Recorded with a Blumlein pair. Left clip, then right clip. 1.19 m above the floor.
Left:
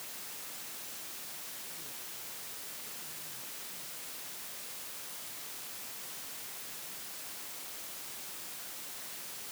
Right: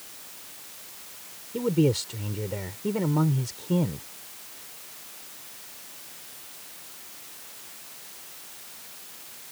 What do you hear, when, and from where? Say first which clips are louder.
1.5 s a man speaking: right 22 dB; 45° right